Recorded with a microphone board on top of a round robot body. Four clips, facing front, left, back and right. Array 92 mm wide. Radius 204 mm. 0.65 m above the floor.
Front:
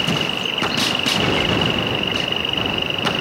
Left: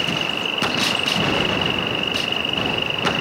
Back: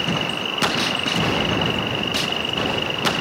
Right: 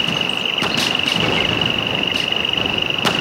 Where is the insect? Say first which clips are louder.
Right 1 dB, front 2 dB; 65° right.